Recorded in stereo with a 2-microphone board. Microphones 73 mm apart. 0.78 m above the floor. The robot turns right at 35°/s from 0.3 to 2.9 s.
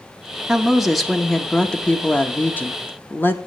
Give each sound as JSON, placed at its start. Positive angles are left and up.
{"t": 0.5, "sound": "a woman speaking", "side_deg": -10, "distance_m": 1.0}